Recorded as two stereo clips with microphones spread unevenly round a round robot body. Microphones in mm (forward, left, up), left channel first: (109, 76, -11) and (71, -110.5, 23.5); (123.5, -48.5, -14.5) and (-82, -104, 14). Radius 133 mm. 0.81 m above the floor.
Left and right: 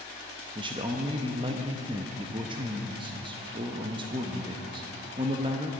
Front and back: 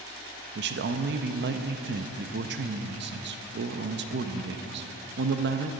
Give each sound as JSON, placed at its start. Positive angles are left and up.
{"t": 0.6, "sound": "a man speaking", "azimuth_deg": -170, "distance_m": 0.6}